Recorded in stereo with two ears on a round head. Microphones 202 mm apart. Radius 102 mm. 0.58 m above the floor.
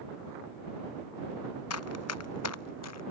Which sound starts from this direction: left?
Running footsteps, at 1.7 s.